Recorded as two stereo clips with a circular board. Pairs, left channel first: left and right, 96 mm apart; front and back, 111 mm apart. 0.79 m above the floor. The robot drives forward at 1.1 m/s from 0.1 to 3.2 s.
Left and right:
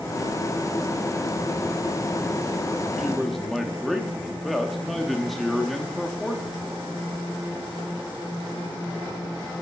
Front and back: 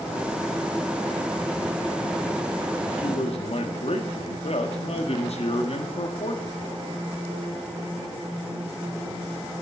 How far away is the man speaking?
About 1.6 m.